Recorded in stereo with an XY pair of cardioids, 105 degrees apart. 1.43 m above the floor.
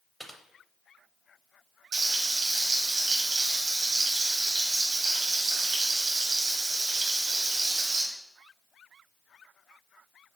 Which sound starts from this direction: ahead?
Typing on a keyboard, at 0.2 s.